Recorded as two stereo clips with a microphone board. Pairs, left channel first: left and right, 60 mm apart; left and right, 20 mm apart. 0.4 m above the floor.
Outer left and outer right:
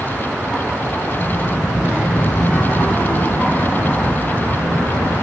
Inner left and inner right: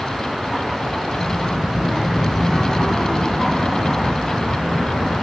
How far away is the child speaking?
About 1.1 m.